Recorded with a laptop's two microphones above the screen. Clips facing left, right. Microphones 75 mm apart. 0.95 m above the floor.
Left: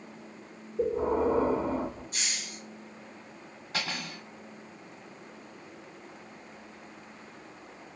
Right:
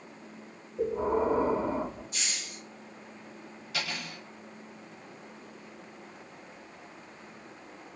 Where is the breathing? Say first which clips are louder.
Left 1 dB; 10° right (ahead or behind), 2.5 m.